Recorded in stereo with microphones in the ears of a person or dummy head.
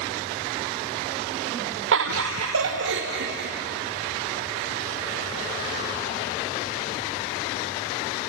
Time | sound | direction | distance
1.9 | laughter | 75° right (ahead or behind) | 1.3 m